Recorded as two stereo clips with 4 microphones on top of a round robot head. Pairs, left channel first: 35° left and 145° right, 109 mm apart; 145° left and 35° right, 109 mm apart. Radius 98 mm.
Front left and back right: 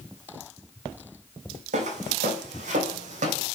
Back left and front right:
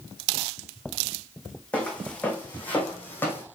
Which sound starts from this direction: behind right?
Footsteps, at 1.7 s.